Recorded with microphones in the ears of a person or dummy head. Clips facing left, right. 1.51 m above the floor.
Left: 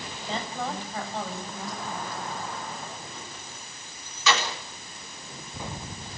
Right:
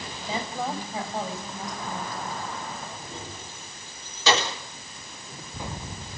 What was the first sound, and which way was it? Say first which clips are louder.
A woman speaking: right 2 dB; 10° right (ahead or behind).